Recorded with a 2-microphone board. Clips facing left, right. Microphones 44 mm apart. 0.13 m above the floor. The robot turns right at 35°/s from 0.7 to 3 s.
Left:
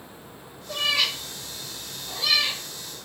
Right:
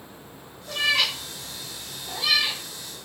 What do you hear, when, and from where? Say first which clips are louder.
0.7 s a cat meowing: right 1 dB; 70° right (ahead or behind), 1.6 m; by 2.6 s 10° right (ahead or behind), 1.6 m